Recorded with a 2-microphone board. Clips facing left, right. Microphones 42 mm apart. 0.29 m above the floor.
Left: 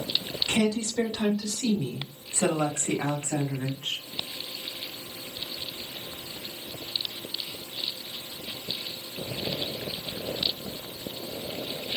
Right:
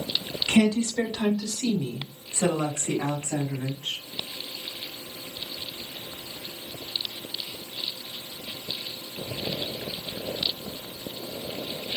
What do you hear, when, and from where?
0.5 s a woman speaking: 30° right (ahead or behind), 1.2 m; by 4.0 s 55° left (ahead or behind), 2 m